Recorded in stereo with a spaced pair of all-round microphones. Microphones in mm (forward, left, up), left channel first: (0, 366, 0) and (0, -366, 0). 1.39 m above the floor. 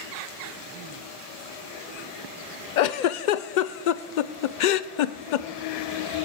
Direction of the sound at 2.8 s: 80° left.